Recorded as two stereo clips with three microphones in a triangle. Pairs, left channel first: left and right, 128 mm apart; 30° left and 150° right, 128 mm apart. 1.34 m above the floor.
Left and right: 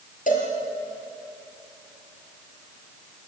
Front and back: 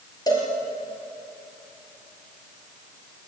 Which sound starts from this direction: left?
A cowbell, at 0.3 s.